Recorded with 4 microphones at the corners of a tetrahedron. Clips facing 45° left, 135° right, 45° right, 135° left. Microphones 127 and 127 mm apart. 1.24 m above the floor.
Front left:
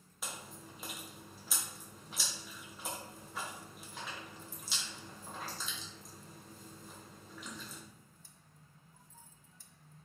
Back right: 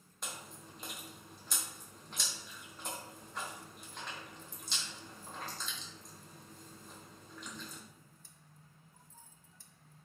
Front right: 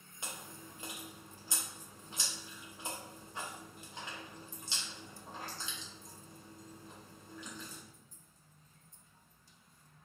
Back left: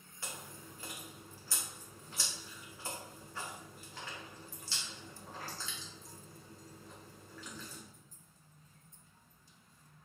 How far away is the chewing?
About 0.6 m.